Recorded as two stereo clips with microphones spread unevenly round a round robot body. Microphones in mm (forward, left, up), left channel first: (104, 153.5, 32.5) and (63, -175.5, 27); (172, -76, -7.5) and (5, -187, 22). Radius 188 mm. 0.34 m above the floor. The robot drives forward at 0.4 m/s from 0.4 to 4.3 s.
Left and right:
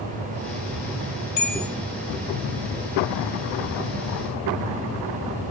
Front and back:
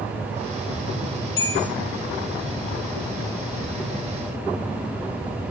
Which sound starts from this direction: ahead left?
A bell, at 1.4 s.